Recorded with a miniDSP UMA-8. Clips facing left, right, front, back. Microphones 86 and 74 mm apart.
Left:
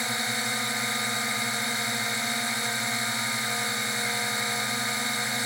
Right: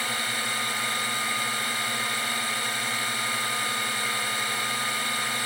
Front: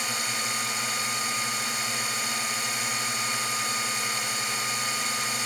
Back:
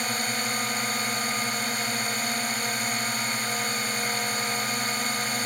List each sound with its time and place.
0.0 s a drone: 155° left